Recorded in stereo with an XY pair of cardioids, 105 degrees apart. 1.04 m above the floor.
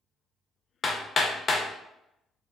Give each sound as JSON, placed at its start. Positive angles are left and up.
{"t": 0.8, "sound": "hammering", "azimuth_deg": 40, "distance_m": 0.6}